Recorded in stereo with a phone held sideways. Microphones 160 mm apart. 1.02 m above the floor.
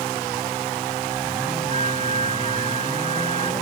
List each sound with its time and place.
1.7 s a flute: 45° right (ahead or behind)